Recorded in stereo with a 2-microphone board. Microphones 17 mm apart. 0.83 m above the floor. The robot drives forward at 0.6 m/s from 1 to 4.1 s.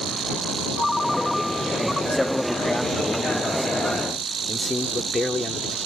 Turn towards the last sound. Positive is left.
turn(degrees=15)  # may be behind; listen again after turning